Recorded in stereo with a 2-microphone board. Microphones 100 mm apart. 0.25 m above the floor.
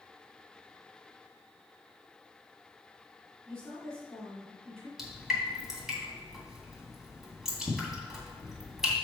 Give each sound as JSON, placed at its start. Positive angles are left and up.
{"t": 3.5, "sound": "a woman speaking", "side_deg": 10, "distance_m": 3.5}
{"t": 5.0, "sound": "dripping", "side_deg": -5, "distance_m": 2.5}